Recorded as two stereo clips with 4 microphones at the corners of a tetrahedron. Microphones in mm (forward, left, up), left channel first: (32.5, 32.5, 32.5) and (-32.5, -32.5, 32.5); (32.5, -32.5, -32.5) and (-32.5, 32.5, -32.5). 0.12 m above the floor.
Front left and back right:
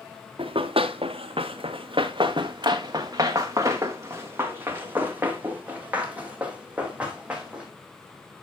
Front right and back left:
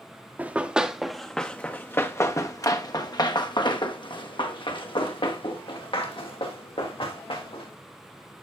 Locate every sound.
0.4 s running footsteps: 150° right, 1.2 m; by 7.7 s 55° right, 3.5 m